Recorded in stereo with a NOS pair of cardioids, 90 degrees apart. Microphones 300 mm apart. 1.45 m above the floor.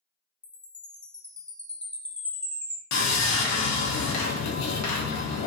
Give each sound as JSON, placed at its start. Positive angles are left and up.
{"t": 0.4, "sound": "a chime", "azimuth_deg": 5, "distance_m": 0.5}
{"t": 2.9, "sound": "sawing", "azimuth_deg": 65, "distance_m": 0.7}